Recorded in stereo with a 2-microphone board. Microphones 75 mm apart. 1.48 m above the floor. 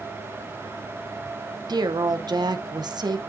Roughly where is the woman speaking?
Right.